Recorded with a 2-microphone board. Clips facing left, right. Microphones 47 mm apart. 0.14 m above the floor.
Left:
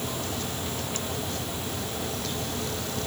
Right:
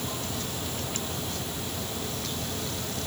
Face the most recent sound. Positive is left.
No sound to turn to.